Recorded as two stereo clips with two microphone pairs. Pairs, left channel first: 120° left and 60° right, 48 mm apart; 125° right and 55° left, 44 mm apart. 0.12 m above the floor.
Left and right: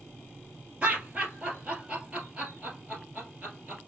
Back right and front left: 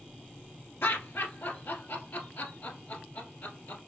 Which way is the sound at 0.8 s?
125° right.